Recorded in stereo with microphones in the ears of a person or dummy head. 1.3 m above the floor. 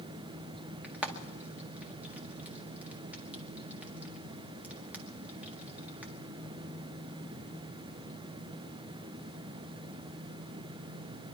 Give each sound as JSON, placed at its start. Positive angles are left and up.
{"t": 0.8, "sound": "frying", "side_deg": -5, "distance_m": 1.6}